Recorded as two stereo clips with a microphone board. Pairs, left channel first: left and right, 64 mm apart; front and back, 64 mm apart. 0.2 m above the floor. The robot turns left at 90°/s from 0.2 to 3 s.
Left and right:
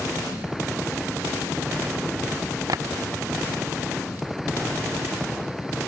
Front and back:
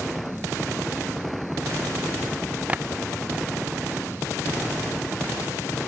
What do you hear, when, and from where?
2.7 s tapping: 110° right; by 2.8 s 120° right